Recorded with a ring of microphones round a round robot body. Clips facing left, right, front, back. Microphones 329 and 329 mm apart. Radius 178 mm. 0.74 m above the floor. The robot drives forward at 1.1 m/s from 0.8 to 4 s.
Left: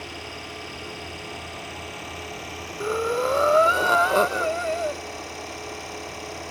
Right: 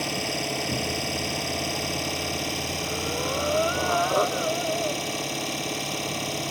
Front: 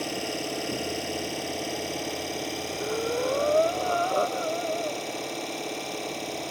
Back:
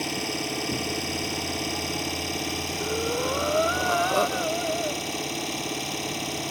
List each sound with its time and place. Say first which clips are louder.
0.0 s an engine running: right 8 dB, back 1 dB; 110° right; by 6.5 s 120° right
2.8 s breathing: left 10 dB, even; 85° left; by 5.0 s 125° left